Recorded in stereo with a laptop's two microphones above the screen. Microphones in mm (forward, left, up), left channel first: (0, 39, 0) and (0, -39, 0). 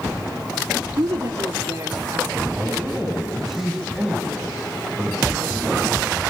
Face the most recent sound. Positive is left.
turn(degrees=-5)  # may be behind; listen again after turning